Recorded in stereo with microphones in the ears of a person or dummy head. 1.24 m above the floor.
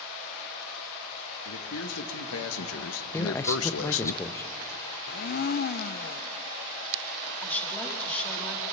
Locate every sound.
1.4 s a man speaking: 75° left (ahead or behind), 2.5 m; by 4.1 s 55° left (ahead or behind), 0.7 m
3.1 s a man speaking: 15° left (ahead or behind), 1.0 m
5.1 s a blender: 45° left (ahead or behind), 0.7 m
7.4 s a woman speaking: 10° left (ahead or behind), 2.5 m